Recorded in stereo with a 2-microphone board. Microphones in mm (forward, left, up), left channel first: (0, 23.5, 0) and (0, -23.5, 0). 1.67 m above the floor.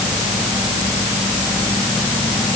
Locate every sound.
Only background noise.